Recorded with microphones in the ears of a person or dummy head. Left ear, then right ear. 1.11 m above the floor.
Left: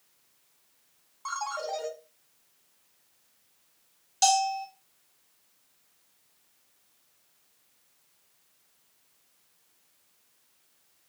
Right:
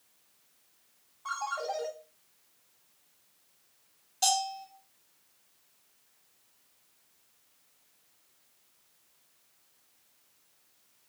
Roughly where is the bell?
Left.